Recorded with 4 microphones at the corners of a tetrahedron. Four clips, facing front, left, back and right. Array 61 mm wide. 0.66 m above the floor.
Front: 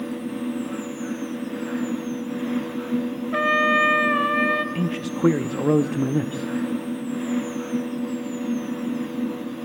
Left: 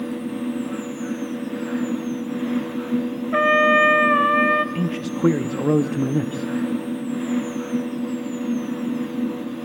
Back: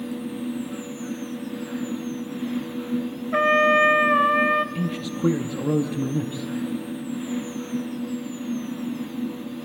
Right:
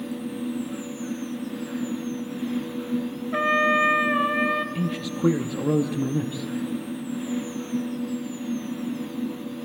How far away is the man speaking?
About 0.5 m.